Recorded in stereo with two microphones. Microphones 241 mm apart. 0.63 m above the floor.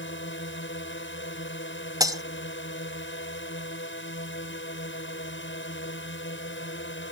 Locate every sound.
0.0 s a drone: 55° left (ahead or behind)
2.0 s breaking glass: 15° right (ahead or behind)